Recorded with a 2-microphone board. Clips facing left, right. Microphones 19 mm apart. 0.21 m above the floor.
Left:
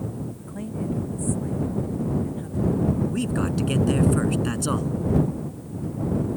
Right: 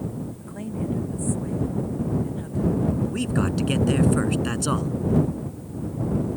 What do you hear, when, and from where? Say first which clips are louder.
0.4 s a woman speaking: right 1 dB; 5° right (ahead or behind); by 2.9 s 10° right (ahead or behind)
3.1 s a man speaking: right 1 dB; 10° right (ahead or behind)